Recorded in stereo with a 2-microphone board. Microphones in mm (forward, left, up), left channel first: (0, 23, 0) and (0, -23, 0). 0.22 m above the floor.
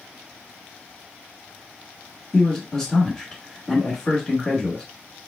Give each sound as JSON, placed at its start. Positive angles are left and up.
{"t": 2.3, "sound": "a man speaking", "side_deg": 15, "distance_m": 1.2}